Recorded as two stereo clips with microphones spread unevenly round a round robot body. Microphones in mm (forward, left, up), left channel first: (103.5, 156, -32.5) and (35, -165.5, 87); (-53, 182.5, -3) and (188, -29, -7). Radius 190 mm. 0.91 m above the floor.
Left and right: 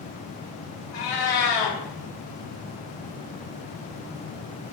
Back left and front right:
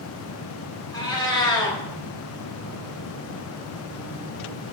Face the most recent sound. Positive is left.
turn(degrees=60)